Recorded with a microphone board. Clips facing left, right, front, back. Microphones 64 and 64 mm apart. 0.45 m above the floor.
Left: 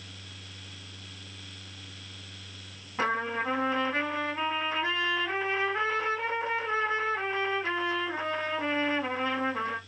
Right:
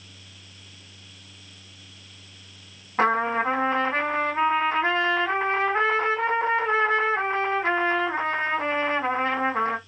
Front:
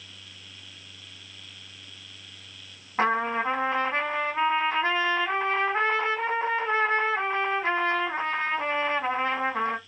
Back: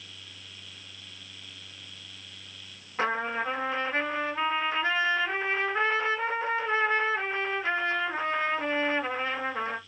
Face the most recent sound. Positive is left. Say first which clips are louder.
# right 7 dB, front 4 dB
turn(degrees=-50)